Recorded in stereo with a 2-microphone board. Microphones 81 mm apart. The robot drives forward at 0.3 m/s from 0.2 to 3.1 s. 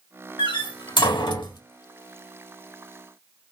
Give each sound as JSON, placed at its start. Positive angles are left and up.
{"t": 0.4, "sound": "a door slam", "side_deg": 80, "distance_m": 1.4}